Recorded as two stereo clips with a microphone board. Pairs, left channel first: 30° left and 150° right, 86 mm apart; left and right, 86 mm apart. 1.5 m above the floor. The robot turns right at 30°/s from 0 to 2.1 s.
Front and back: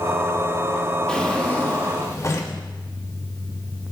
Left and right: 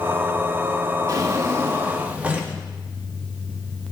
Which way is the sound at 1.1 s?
50° right.